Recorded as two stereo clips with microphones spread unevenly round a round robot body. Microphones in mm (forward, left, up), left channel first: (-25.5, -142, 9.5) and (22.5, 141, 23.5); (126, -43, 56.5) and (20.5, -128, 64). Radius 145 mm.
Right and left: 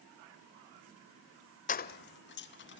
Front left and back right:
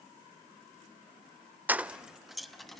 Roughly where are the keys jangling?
Ahead right.